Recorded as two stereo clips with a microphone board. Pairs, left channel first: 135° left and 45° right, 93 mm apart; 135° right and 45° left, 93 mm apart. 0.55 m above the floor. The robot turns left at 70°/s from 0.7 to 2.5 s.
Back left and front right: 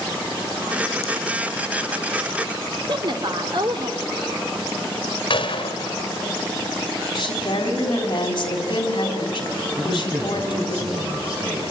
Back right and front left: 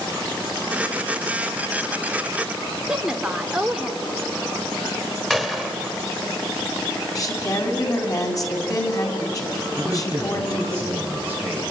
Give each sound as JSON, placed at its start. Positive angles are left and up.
{"t": 2.9, "sound": "a woman speaking", "azimuth_deg": -35, "distance_m": 1.7}
{"t": 5.3, "sound": "a gunshot", "azimuth_deg": 135, "distance_m": 1.9}
{"t": 7.2, "sound": "a woman speaking", "azimuth_deg": 170, "distance_m": 3.5}
{"t": 9.8, "sound": "a man speaking", "azimuth_deg": -45, "distance_m": 6.5}